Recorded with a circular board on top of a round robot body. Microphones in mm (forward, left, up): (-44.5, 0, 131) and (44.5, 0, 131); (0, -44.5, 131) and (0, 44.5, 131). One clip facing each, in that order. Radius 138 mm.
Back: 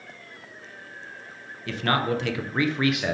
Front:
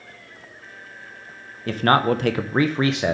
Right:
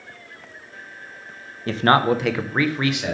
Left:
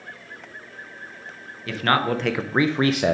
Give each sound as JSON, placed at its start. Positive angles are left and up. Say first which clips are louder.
{"t": 1.7, "sound": "a man speaking", "louder": "front 6 dB, right 4 dB", "azimuth_deg": -40, "distance_m": 0.8}